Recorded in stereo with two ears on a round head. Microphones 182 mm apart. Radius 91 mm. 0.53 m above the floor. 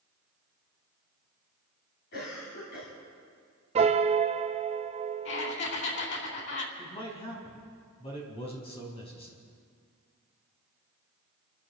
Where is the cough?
50° left (ahead or behind), 4 m.